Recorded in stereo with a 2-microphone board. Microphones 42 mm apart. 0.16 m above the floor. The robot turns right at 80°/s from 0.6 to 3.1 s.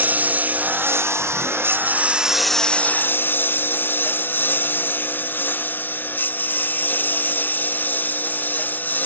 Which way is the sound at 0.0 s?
35° right (ahead or behind).